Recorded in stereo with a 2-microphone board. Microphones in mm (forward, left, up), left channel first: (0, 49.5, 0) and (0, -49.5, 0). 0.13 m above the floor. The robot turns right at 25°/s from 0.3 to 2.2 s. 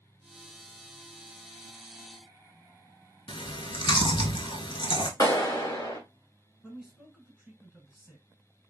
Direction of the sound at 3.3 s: 55° left (ahead or behind).